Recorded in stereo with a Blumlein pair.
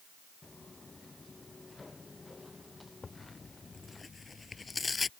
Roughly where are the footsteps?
Ahead.